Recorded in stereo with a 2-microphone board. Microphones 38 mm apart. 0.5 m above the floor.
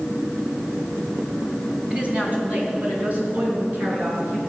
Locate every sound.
1.9 s a woman speaking: 30° right (ahead or behind), 3.5 m; by 4.4 s 55° right (ahead or behind), 6.5 m